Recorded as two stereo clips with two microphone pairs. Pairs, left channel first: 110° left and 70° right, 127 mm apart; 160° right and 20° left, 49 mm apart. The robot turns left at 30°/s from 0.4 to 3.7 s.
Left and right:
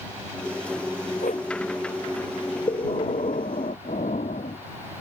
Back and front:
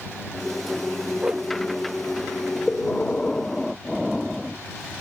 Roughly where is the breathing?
Behind left.